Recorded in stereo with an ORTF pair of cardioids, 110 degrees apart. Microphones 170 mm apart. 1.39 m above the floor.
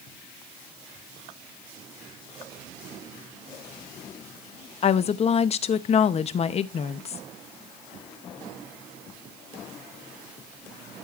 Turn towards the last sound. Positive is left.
turn(degrees=40)